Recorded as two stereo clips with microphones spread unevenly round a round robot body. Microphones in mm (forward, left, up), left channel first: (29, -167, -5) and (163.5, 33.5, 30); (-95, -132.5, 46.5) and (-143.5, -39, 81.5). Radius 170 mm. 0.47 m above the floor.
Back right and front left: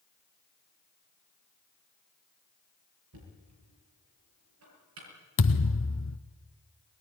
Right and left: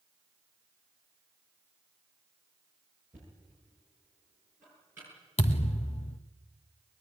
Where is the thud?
85° right, 1.6 m.